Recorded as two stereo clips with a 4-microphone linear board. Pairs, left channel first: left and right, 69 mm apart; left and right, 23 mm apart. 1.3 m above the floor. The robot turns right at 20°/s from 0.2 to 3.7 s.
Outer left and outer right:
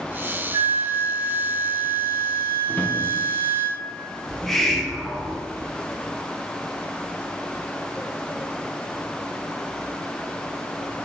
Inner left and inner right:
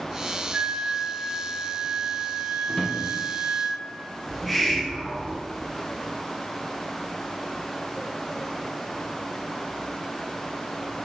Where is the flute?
100° right, 0.7 m; by 3.7 s 40° right, 0.7 m.